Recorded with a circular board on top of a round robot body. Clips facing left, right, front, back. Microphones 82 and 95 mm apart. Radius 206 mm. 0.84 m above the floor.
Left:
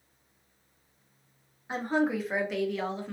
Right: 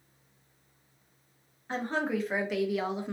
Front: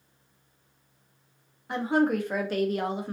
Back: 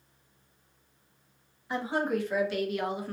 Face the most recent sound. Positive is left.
turn(degrees=-50)